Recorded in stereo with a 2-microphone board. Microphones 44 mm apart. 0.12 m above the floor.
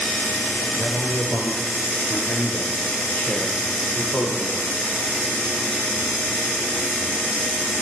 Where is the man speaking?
50° left (ahead or behind), 1.9 m; by 4.6 s 30° left (ahead or behind), 3.5 m.